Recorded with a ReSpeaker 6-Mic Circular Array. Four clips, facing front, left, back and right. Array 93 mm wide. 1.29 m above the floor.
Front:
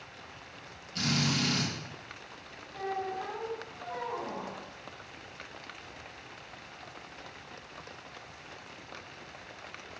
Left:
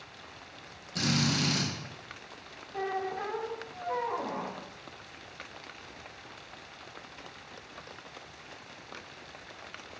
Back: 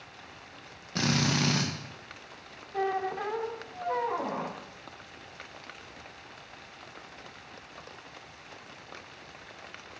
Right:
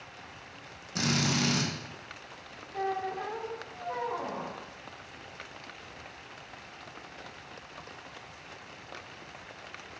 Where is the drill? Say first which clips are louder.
Even, back 3 dB; 170° right, 1.3 m.